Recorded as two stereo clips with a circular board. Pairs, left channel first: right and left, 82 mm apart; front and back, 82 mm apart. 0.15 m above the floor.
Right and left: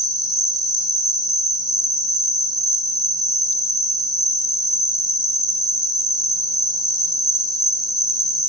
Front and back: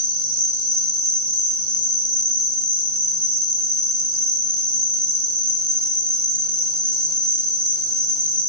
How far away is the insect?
About 0.8 m.